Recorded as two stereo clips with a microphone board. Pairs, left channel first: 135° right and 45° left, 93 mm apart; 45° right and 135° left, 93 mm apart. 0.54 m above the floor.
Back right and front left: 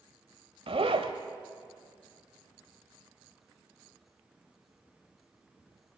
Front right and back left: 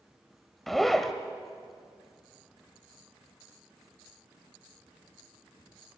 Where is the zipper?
45° left, 1.2 m.